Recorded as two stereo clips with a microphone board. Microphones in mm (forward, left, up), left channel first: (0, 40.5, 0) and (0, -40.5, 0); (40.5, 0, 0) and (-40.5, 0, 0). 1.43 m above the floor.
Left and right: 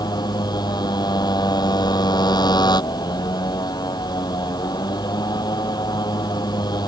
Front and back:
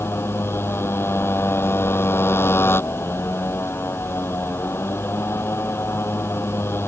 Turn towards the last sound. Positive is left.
turn(degrees=60)